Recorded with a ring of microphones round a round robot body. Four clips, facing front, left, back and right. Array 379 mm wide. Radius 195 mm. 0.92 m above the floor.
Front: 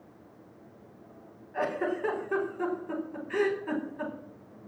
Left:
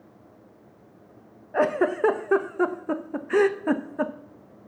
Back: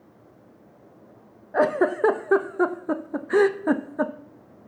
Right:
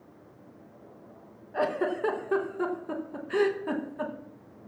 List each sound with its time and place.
1.5 s a giggle: 150° left, 0.8 m